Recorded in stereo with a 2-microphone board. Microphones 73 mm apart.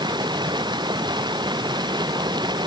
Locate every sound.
0.0 s running water: 85° right